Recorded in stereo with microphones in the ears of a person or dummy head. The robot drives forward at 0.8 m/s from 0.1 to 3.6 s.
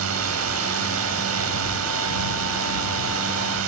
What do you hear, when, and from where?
0.0 s a drone: 75° right (ahead or behind); by 3.7 s 70° right (ahead or behind)